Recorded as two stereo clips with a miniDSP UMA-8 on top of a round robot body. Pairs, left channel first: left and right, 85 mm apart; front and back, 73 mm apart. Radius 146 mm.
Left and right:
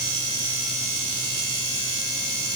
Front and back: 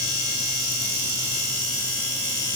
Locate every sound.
Only background noise.